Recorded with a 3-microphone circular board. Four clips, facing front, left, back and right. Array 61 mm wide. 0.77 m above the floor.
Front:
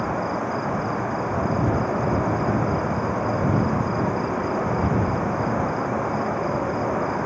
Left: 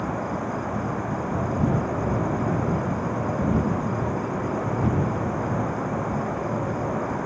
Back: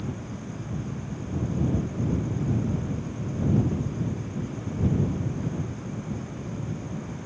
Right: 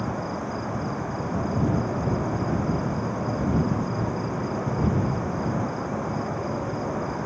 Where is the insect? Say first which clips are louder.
Left 2 dB, front 12 dB; 10° left.